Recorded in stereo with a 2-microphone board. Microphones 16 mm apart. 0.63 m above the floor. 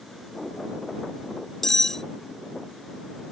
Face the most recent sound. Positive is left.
turn(degrees=20)  # may be behind; listen again after turning